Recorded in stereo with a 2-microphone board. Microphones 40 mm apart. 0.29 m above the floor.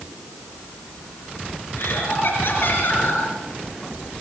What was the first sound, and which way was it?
Laughter, 65° left (ahead or behind).